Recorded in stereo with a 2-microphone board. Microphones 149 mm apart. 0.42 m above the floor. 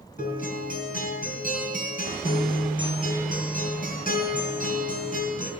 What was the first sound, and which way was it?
A guitar, 75° left (ahead or behind).